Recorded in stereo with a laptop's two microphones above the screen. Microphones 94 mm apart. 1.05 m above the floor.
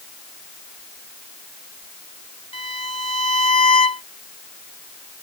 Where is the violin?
80° left.